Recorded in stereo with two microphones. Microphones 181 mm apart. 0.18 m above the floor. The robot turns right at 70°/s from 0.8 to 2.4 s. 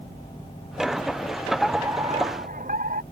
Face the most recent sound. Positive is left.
turn(degrees=-125)